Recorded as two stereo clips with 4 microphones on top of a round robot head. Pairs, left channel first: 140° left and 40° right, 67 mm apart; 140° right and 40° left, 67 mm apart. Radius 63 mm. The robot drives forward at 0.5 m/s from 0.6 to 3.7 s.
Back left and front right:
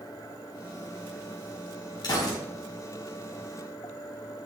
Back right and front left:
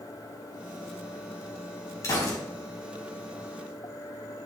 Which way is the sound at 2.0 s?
170° left.